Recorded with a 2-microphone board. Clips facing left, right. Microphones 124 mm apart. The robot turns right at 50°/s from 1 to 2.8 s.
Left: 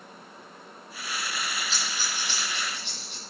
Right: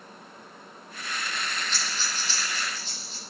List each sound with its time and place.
1.7 s breathing: 35° left (ahead or behind), 4 m; by 3.2 s 80° left, 4 m